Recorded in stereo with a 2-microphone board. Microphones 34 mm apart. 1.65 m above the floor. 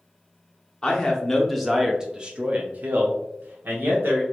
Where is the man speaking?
20° left (ahead or behind), 1.0 m; by 4.2 s 80° right, 1.3 m.